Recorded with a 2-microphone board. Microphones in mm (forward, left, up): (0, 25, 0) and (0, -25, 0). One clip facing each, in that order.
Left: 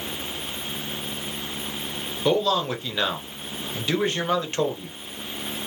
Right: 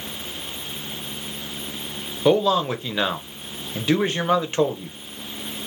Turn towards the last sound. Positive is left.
turn(degrees=-15)  # may be behind; listen again after turning